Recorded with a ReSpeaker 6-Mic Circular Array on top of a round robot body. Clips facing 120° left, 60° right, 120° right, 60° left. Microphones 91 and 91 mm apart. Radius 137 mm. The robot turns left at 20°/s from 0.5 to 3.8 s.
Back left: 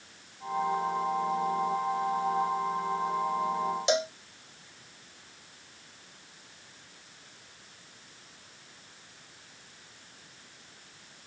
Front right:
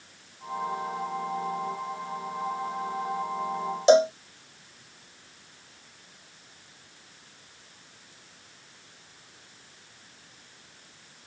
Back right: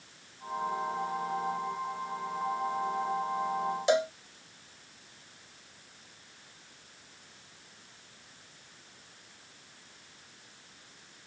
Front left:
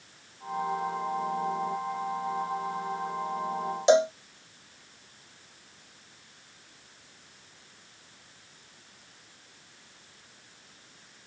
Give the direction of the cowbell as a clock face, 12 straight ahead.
12 o'clock.